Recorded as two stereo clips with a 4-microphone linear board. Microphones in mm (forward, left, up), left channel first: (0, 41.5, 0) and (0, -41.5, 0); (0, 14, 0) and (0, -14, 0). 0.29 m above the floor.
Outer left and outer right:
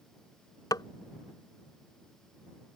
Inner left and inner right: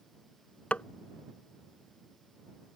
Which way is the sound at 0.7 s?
55° left (ahead or behind).